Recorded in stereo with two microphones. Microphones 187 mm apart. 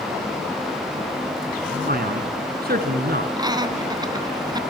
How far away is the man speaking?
About 2.5 m.